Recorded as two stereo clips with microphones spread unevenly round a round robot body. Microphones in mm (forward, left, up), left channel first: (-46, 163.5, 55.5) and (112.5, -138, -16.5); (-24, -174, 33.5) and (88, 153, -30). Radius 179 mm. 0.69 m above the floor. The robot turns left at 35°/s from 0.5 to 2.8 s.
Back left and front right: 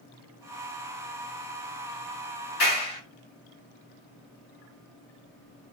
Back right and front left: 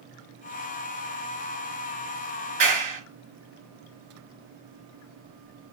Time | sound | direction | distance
2.6 | a clap | 95° left | 6.5 m